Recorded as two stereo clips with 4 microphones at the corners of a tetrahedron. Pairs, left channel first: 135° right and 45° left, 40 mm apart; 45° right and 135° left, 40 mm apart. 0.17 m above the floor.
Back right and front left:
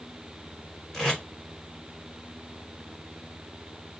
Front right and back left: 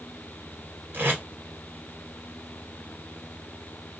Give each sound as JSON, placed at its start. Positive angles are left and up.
{"t": 0.9, "sound": "tape being pulled", "azimuth_deg": 145, "distance_m": 1.8}